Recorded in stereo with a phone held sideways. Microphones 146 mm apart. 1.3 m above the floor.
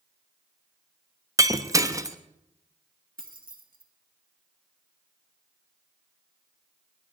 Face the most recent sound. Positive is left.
turn(degrees=-75)  # may be behind; listen again after turning